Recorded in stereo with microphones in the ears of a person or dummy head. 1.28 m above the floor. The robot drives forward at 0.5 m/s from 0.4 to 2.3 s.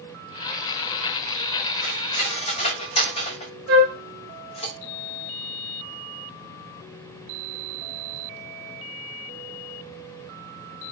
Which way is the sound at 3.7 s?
40° right (ahead or behind).